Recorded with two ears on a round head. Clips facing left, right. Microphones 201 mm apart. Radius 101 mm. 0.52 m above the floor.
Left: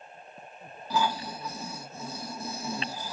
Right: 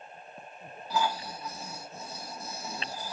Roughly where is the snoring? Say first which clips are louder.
Left 2 dB; left.